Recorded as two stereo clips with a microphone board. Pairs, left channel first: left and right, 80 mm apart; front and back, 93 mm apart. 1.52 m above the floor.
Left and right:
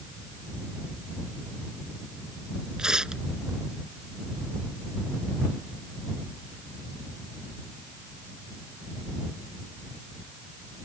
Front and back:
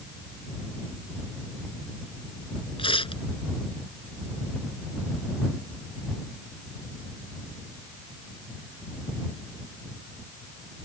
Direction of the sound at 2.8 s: 10° right.